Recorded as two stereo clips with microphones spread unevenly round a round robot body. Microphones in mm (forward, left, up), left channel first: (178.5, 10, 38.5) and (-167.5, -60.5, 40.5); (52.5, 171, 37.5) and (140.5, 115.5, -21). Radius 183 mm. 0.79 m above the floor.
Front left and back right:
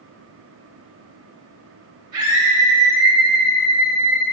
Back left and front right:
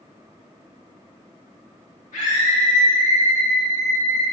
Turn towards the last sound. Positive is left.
turn(degrees=160)